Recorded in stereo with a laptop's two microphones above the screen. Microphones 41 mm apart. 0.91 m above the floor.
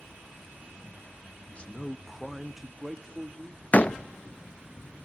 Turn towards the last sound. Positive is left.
turn(degrees=35)  # may be behind; listen again after turning